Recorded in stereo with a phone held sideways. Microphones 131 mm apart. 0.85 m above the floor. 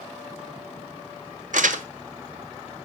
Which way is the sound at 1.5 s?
75° right (ahead or behind).